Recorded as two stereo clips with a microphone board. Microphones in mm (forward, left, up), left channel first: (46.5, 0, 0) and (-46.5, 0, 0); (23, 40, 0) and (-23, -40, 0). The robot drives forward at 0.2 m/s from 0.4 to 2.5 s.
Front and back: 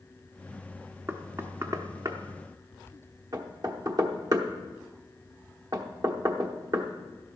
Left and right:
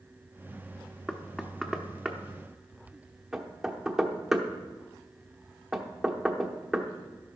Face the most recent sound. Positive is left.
turn(degrees=155)